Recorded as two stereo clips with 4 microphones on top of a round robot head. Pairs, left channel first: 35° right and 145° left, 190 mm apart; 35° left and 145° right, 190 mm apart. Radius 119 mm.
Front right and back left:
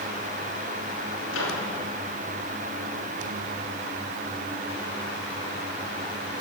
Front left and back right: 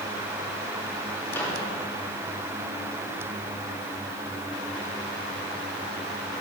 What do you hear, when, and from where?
1.3 s a microwave: 45° right, 3 m